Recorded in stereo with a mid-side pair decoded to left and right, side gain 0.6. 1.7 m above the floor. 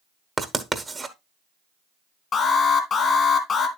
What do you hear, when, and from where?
0.4 s writing: 20° right, 1.2 m
2.3 s an alarm: 35° left, 2 m